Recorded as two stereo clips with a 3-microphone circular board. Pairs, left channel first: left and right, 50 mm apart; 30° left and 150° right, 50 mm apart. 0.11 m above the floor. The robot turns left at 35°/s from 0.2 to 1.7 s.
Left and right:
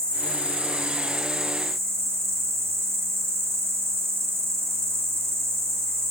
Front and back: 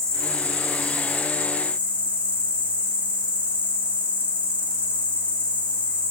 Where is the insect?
35° right, 0.7 m; by 6.1 s 90° right, 0.7 m.